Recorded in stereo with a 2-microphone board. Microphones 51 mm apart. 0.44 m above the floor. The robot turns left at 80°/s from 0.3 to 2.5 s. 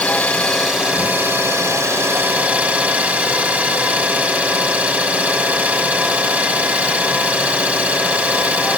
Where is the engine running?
25° left, 2.5 m; by 8.8 s 155° right, 2.5 m.